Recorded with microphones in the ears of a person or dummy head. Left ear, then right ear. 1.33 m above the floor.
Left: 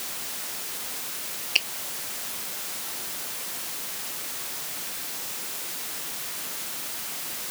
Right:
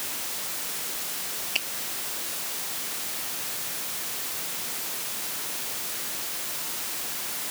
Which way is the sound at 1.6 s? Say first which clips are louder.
Left 6 dB; 25° left (ahead or behind).